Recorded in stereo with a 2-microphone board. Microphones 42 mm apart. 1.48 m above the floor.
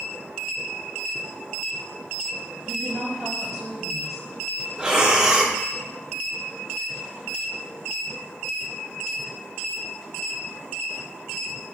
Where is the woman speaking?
5° right (ahead or behind), 2.5 m.